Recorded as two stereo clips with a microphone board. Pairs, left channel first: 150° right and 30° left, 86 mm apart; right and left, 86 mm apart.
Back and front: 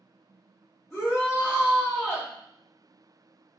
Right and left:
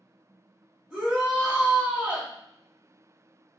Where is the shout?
170° left, 1.7 m.